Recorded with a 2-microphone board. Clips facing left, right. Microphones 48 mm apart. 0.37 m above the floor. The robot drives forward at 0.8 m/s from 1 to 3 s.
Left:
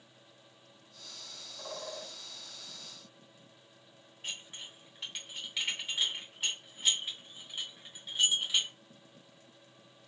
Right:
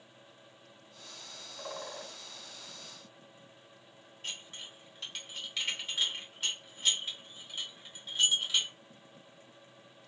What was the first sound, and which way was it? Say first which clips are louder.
A bird: even; 20° right (ahead or behind).